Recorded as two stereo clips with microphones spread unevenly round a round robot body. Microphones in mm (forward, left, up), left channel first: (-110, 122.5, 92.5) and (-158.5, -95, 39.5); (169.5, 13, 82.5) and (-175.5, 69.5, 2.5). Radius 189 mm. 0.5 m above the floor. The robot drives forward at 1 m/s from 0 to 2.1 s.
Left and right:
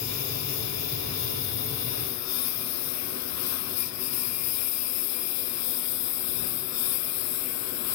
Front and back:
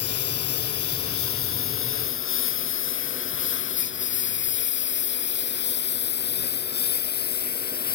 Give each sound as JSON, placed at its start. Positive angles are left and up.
{"t": 0.0, "sound": "a lawn mower", "azimuth_deg": 40}